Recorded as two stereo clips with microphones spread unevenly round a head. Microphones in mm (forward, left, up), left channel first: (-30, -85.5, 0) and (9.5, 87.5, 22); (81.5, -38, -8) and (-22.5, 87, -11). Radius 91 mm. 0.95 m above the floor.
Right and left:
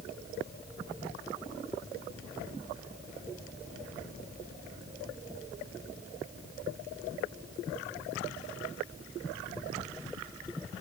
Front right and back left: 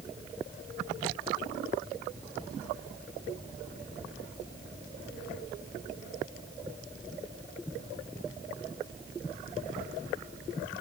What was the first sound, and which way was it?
Only background noise.